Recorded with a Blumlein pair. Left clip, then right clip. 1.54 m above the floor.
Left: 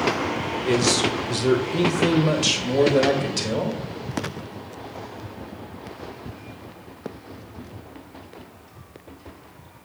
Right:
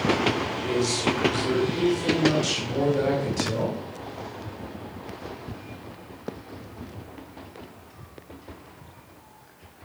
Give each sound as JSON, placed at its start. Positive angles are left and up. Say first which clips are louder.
{"t": 0.6, "sound": "a man speaking", "louder": "left 5 dB", "azimuth_deg": 20, "distance_m": 1.4}